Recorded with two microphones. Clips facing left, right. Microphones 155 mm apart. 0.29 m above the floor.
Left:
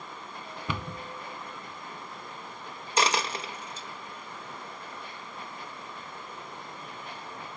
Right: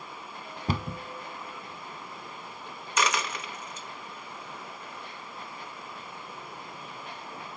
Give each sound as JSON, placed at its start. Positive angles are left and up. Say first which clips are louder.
{"t": 0.7, "sound": "a cupboard door", "louder": "right 4 dB", "side_deg": -40, "distance_m": 0.8}
{"t": 3.0, "sound": "a dropped coin", "louder": "left 2 dB", "side_deg": 30, "distance_m": 0.9}